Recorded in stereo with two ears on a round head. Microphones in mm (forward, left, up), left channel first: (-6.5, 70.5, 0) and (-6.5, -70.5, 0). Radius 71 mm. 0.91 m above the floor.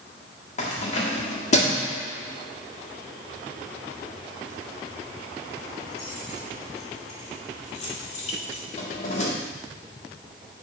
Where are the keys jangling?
50° left (ahead or behind), 1.4 m.